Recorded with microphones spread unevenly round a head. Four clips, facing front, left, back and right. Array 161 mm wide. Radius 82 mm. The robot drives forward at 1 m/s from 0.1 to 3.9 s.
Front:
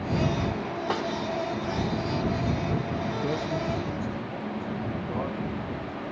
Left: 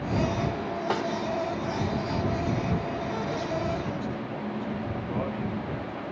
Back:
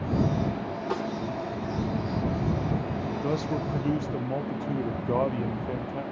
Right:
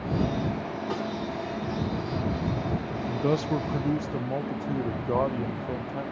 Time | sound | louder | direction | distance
0.9 | a snare drum | left 4 dB, front 1 dB | 45° left | 3.5 m
3.1 | a man speaking | right 4 dB, back 3 dB | 70° right | 0.7 m